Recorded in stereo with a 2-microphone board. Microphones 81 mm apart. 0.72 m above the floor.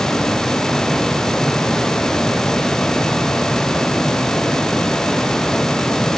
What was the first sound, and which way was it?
Only background noise.